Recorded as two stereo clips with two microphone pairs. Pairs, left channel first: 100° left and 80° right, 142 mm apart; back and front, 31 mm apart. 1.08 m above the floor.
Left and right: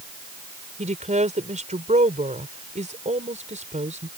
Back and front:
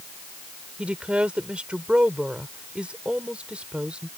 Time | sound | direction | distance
0.8 | a woman speaking | 55° right | ?